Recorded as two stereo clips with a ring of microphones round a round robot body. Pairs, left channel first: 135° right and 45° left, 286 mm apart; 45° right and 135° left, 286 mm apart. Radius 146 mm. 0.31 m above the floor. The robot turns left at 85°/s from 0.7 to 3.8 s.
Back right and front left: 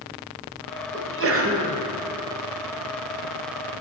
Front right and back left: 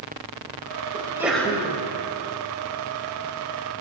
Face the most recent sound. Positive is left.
turn(degrees=-165)